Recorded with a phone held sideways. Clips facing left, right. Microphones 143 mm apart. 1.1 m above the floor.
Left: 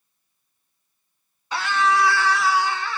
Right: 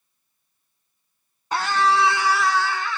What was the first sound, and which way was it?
A scream, 45° right (ahead or behind).